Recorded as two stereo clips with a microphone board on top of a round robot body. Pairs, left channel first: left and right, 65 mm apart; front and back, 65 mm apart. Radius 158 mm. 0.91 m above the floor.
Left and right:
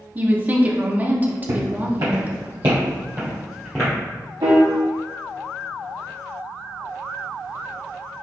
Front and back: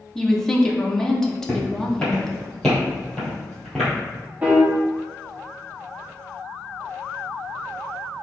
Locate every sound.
0.1 s a woman speaking: 75° right, 0.9 m
1.5 s footsteps: 80° right, 1.9 m; by 3.9 s 95° left, 0.9 m
4.4 s a piano: 110° right, 0.7 m